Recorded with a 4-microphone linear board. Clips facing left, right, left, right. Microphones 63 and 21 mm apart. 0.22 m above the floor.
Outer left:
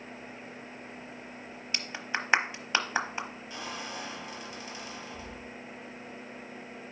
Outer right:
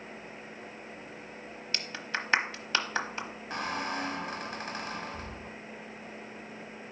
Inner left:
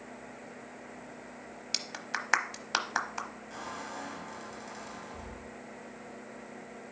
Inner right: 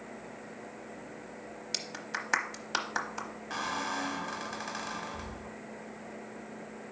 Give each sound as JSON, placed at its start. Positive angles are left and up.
{"t": 1.7, "sound": "a clap", "side_deg": 15, "distance_m": 0.9}
{"t": 3.5, "sound": "a squeak", "side_deg": -55, "distance_m": 0.7}